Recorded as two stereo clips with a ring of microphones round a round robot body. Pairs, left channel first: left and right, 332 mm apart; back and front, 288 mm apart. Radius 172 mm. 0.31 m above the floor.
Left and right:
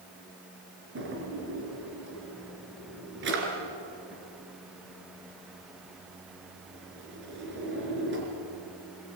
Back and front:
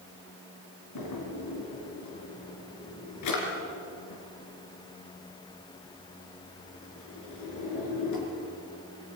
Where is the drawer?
145° right, 3.5 m.